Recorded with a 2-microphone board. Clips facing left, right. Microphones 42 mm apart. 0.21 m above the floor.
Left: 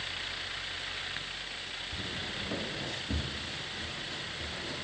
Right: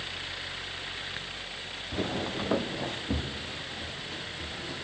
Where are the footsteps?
75° right (ahead or behind), 0.7 m; by 4.8 s 5° right (ahead or behind), 2.5 m.